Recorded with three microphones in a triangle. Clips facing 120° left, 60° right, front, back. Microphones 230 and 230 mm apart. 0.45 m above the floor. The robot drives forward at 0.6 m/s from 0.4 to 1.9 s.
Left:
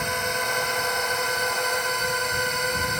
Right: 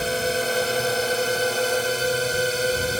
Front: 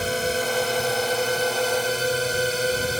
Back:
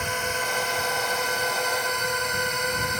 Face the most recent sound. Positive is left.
turn(degrees=-30)